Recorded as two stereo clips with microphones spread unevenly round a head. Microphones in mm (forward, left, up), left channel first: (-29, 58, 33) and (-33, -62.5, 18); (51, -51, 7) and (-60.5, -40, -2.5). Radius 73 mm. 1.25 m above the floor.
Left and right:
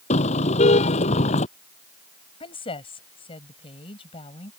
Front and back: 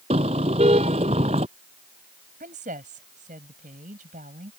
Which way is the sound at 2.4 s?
130° left.